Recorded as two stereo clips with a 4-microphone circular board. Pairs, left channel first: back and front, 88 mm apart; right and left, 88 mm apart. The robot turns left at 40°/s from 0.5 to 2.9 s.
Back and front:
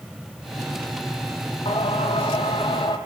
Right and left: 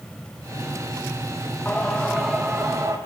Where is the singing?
165° right, 2 m; by 3.0 s 145° left, 2 m.